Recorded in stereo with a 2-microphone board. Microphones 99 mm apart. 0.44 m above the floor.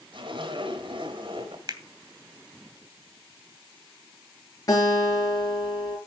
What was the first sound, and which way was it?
A zipper, 60° right (ahead or behind).